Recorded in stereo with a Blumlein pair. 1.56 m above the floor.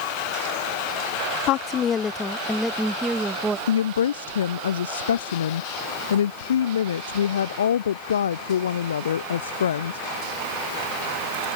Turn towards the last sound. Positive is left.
turn(degrees=65)